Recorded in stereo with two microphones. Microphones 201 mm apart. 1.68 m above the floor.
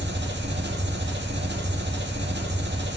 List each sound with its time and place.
0.0 s an engine running: 60° right (ahead or behind), 1.8 m